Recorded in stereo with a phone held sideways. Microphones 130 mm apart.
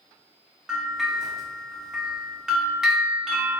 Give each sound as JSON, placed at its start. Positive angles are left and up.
{"t": 0.7, "sound": "a bell", "side_deg": -5, "distance_m": 1.0}